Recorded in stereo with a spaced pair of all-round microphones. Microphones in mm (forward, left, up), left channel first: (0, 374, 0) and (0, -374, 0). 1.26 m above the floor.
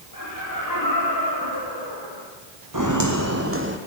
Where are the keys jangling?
No keys jangling in this recording.